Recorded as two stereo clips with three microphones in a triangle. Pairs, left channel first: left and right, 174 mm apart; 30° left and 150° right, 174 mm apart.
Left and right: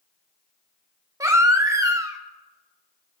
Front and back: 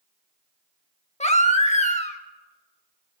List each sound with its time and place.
1.2 s a baby crying: 20° right, 0.9 m